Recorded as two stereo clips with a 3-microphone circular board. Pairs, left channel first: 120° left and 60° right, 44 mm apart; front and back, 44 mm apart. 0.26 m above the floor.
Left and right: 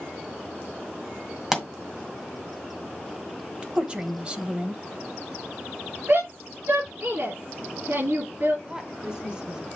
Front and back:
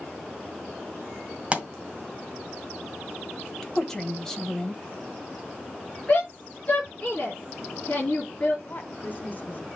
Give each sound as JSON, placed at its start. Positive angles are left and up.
{"t": 1.5, "sound": "a pop", "azimuth_deg": -140, "distance_m": 1.9}
{"t": 3.6, "sound": "a woman speaking", "azimuth_deg": -65, "distance_m": 1.1}
{"t": 6.1, "sound": "a shout", "azimuth_deg": -65, "distance_m": 4.5}
{"t": 8.7, "sound": "a woman speaking", "azimuth_deg": 0, "distance_m": 1.7}